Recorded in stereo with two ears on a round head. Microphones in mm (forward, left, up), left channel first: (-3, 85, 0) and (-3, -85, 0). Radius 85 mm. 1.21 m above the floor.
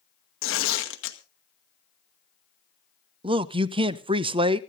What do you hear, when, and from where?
0.4 s tearing paper: 75° left (ahead or behind), 1.9 m
3.2 s a man speaking: 25° right (ahead or behind), 0.6 m